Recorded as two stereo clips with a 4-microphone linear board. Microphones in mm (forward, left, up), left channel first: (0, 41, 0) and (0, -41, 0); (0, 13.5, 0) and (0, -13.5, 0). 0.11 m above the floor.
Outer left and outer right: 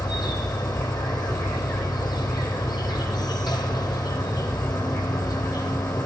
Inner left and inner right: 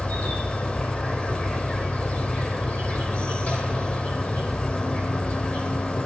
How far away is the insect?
About 3 m.